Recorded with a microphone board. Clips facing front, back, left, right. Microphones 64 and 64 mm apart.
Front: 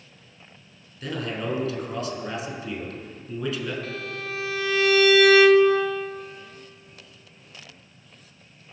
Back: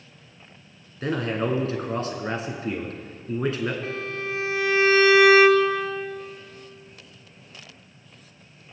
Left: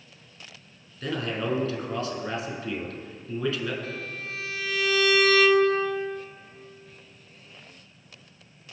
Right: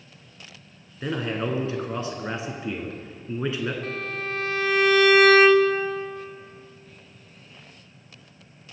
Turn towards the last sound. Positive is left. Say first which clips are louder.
# back 3 dB, right 5 dB
turn(degrees=-125)